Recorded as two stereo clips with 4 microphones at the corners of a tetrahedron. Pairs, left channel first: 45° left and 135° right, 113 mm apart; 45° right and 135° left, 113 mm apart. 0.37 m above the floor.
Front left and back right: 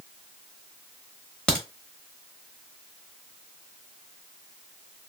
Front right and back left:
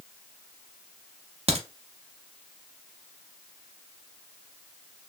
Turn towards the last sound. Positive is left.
turn(degrees=125)